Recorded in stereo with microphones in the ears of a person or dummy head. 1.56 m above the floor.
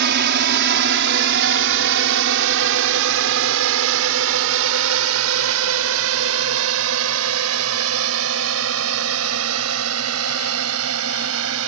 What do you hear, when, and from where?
0.0 s a drone: 60° right (ahead or behind); by 11.7 s 80° right